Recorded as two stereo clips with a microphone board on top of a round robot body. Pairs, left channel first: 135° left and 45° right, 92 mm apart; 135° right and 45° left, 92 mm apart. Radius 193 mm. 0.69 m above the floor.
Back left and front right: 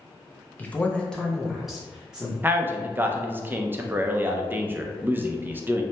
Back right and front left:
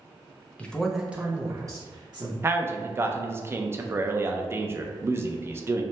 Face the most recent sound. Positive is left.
turn(degrees=5)